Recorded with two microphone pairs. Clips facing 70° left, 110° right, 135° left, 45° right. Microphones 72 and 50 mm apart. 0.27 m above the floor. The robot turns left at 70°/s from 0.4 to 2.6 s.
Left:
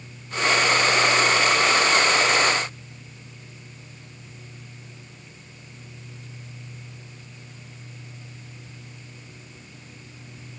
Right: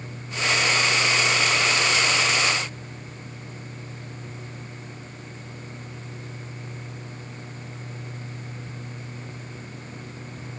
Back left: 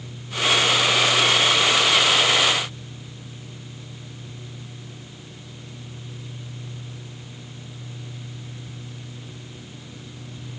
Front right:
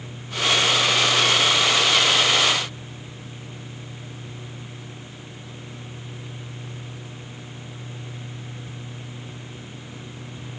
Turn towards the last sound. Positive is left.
No sound to turn to.